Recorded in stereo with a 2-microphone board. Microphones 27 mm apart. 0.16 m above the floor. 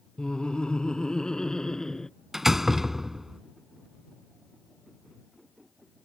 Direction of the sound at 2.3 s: 10° right (ahead or behind).